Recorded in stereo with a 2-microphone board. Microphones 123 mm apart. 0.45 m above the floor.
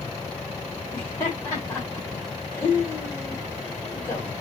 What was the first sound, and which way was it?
Laughter, 20° left (ahead or behind).